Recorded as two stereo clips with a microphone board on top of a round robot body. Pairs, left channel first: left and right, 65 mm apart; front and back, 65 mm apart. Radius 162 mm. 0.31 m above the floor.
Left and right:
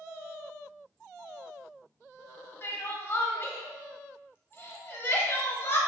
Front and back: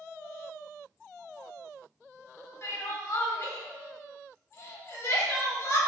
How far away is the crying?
About 0.7 m.